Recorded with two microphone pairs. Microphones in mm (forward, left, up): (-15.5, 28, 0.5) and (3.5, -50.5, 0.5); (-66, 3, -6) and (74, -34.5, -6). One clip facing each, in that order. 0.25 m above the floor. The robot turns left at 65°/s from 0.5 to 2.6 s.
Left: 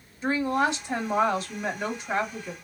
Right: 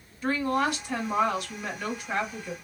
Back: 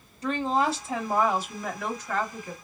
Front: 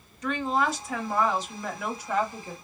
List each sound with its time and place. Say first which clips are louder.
0.2 s a woman speaking: left 1 dB, back 1 dB; 155° left, 1.1 m; by 2.5 s 20° left, 1.1 m